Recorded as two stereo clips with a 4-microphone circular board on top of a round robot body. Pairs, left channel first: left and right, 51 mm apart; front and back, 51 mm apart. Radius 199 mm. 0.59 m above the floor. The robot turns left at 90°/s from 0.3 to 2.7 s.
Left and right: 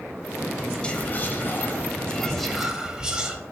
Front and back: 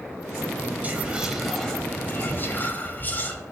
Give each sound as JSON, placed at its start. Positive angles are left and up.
{"t": 0.8, "sound": "whispering", "azimuth_deg": 150, "distance_m": 0.7}